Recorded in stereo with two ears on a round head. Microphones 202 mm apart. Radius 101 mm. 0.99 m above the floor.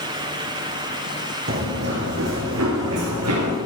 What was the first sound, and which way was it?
Running footsteps, 40° right (ahead or behind).